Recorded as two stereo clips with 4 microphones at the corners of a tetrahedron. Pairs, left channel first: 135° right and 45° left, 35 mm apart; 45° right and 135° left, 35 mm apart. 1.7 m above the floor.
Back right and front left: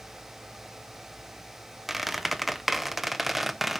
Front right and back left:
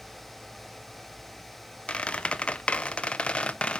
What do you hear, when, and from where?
1.9 s a squeak: 40° right, 0.6 m